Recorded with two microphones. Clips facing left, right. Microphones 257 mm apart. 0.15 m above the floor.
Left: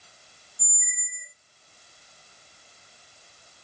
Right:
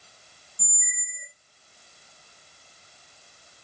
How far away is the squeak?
About 1.6 m.